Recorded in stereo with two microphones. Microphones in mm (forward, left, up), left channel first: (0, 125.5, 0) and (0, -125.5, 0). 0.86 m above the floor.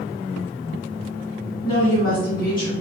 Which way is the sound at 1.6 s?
35° left (ahead or behind).